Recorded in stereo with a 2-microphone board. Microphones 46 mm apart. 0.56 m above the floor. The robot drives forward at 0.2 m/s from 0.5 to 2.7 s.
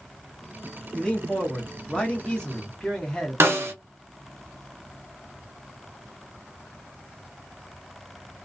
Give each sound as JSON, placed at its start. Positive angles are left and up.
{"t": 0.9, "sound": "a man speaking", "side_deg": 15, "distance_m": 0.9}
{"t": 3.4, "sound": "a snare drum", "side_deg": -55, "distance_m": 1.0}